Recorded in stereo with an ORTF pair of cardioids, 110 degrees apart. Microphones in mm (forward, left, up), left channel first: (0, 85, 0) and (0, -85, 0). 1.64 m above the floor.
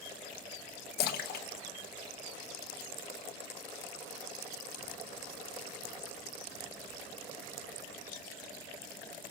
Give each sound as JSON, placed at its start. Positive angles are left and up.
{"t": 1.0, "sound": "a splash", "azimuth_deg": 70, "distance_m": 1.4}